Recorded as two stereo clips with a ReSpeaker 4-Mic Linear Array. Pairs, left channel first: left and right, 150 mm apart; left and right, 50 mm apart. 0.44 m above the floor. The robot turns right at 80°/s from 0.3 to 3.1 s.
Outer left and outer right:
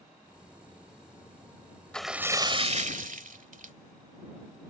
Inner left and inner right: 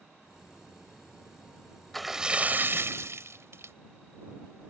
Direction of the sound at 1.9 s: 175° left.